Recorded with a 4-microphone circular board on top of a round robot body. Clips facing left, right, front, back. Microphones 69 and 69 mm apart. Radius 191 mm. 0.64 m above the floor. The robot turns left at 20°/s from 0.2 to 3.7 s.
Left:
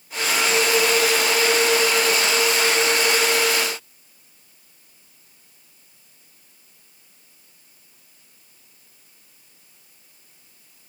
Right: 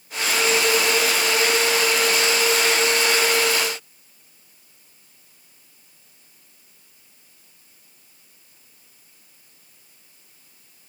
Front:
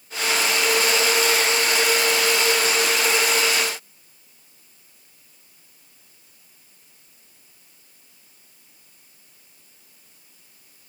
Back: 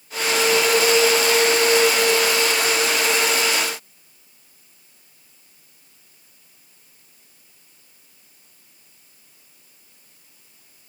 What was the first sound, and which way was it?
Only background noise.